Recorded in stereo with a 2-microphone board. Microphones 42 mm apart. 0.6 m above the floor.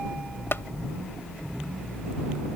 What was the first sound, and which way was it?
Tapping, 70° left (ahead or behind).